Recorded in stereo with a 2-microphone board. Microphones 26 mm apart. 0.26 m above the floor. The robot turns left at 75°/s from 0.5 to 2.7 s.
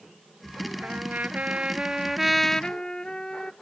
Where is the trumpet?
70° right; by 3.5 s 150° left.